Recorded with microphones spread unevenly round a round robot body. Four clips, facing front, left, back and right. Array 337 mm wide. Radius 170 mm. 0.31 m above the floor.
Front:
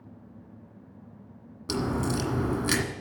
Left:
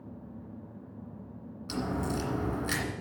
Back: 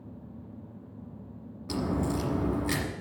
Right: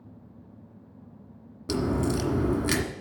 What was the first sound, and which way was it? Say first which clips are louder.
A crack: right 6 dB, front 1 dB; 70° right.